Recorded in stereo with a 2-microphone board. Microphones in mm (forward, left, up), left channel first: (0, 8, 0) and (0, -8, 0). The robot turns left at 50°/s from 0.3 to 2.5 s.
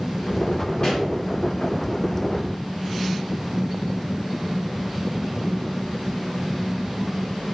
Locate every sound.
0.8 s a pop: 40° left (ahead or behind), 3 m; by 1.1 s 55° left (ahead or behind), 3 m